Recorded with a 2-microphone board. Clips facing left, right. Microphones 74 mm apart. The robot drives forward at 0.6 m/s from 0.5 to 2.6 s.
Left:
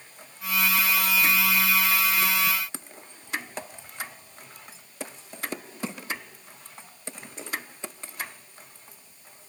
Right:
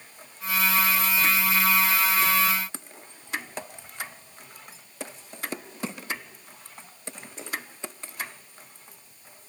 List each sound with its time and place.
Only background noise.